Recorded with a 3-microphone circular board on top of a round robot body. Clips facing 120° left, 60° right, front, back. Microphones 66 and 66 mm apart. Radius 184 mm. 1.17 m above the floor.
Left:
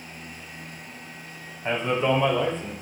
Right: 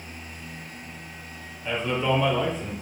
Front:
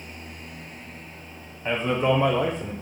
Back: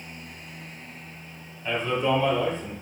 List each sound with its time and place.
1.6 s a man speaking: 65° left, 0.8 m; by 2.7 s 15° left, 1.0 m